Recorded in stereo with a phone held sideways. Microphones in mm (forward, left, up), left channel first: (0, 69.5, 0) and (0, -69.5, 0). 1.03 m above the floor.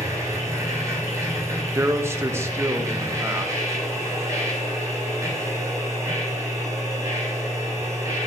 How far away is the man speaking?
About 1.0 m.